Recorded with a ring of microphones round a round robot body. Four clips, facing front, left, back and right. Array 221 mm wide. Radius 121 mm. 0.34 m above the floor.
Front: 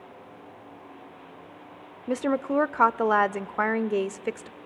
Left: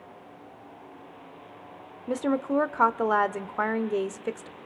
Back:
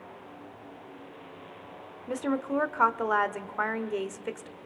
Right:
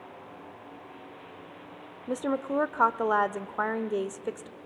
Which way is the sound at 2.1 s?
20° left.